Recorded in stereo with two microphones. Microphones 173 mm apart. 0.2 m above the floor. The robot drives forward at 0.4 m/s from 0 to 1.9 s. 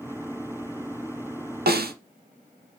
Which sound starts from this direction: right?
A snare drum, at 1.7 s.